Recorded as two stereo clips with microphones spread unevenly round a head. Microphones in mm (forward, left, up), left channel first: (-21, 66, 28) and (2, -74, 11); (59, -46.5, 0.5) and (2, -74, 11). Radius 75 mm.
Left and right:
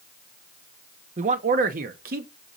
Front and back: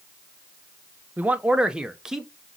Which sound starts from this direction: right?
A man speaking, at 1.2 s.